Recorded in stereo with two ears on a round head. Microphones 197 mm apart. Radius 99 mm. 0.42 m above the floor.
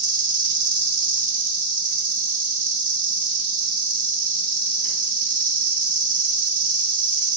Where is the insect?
35° right (ahead or behind), 1.4 m.